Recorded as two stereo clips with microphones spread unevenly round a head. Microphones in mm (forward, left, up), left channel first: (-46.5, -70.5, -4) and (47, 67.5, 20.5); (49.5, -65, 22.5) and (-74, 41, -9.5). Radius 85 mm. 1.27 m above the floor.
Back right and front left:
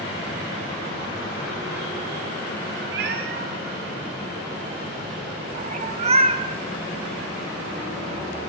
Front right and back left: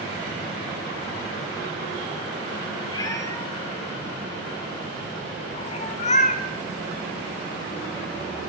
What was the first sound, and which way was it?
A cat meowing, 30° left.